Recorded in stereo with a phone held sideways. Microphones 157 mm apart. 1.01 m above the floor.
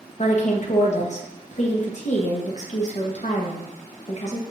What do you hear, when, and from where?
0.2 s a woman speaking: 50° left (ahead or behind), 0.8 m